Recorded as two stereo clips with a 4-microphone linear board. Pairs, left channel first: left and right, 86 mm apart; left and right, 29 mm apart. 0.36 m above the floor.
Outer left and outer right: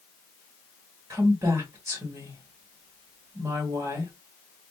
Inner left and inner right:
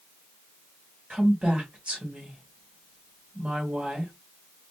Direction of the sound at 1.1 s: 35° right (ahead or behind).